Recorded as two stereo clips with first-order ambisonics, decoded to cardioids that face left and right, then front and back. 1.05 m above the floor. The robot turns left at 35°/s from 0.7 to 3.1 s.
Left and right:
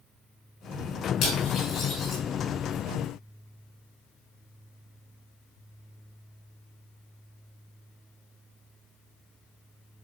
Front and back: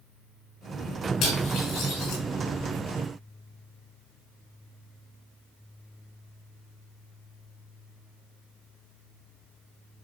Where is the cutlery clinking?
45° left, 6 m; by 2.2 s 10° left, 6 m.